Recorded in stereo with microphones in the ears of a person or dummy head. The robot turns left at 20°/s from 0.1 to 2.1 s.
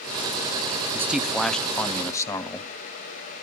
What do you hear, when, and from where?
0.9 s a man speaking: 15° right (ahead or behind), 0.6 m; by 2.7 s 10° left (ahead or behind), 0.6 m